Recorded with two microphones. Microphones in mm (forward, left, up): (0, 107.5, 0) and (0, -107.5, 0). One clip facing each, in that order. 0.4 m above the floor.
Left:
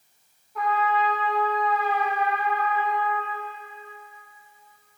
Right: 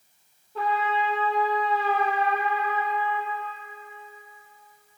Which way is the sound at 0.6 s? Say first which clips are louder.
Left 2 dB; 30° right (ahead or behind).